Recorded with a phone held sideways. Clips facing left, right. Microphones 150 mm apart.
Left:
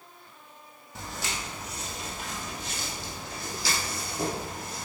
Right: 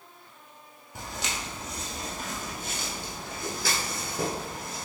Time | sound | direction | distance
0.9 | footsteps | 15° right (ahead or behind) | 1.6 m